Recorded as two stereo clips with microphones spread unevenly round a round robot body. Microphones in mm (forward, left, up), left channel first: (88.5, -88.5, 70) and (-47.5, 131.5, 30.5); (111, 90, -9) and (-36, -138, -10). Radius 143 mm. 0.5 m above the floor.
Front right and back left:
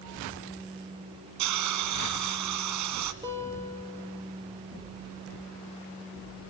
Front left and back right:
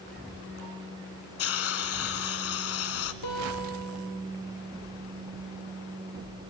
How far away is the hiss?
About 1.6 m.